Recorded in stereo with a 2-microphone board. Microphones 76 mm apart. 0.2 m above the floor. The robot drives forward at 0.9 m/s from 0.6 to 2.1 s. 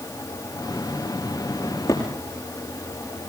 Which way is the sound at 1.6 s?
45° left (ahead or behind).